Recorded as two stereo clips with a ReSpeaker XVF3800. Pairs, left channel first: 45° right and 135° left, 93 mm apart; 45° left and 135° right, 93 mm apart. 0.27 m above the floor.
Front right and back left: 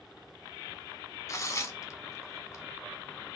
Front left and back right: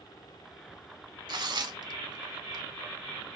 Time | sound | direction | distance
1.3 | tearing paper | 95° right | 0.7 m